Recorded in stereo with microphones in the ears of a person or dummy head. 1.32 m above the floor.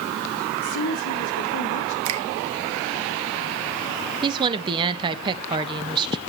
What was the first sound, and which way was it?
A woman speaking, 75° left (ahead or behind).